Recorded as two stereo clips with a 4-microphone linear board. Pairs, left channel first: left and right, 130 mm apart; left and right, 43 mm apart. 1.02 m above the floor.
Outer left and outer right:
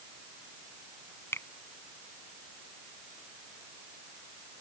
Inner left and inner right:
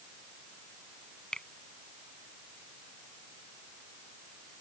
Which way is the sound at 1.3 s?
20° left (ahead or behind).